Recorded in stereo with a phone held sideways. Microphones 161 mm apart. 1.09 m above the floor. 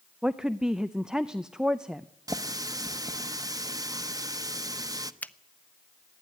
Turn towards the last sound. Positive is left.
turn(degrees=10)  # may be behind; listen again after turning